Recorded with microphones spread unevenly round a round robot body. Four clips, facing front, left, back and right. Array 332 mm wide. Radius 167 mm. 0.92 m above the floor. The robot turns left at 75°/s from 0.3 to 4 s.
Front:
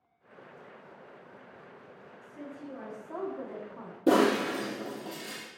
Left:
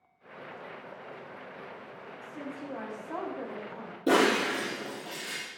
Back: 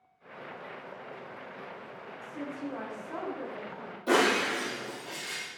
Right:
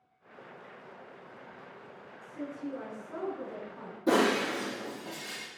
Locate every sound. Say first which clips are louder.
2.2 s a woman speaking: right 2 dB, back 6 dB; 165° left, 7.5 m; by 4.0 s 35° left, 7.5 m
4.1 s breaking glass: left 2 dB, front 2 dB; 20° left, 7.5 m